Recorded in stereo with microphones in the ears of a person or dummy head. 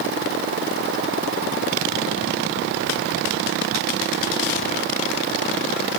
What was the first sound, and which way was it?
Only background noise.